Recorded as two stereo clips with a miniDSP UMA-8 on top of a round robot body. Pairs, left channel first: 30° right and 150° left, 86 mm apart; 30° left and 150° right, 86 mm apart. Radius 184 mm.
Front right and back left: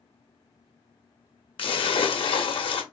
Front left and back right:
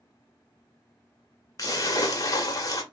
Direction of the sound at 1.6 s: 20° right.